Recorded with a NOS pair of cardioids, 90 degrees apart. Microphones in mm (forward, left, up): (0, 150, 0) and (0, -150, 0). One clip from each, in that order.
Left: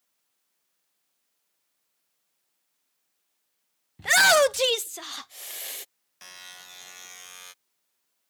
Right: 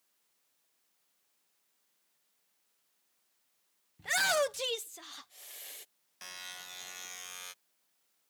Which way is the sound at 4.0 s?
60° left.